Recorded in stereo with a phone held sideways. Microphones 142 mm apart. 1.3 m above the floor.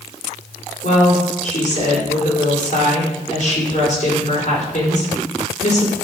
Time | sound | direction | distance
0.8 | a woman speaking | 60° left (ahead or behind) | 4.5 m